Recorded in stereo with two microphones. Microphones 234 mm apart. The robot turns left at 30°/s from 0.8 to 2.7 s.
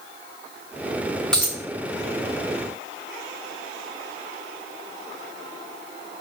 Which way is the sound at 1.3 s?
5° left (ahead or behind).